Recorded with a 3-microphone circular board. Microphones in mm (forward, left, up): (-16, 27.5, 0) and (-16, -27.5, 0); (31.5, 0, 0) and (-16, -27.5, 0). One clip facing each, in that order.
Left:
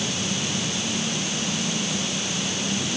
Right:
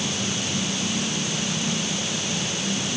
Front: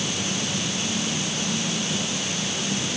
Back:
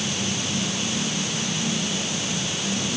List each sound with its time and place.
Only background noise.